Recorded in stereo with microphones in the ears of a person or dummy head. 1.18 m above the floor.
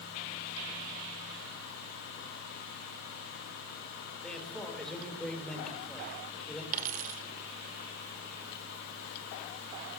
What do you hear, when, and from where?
4.2 s a man speaking: 5° left (ahead or behind), 4.5 m
6.7 s a dropped coin: 45° right (ahead or behind), 1.6 m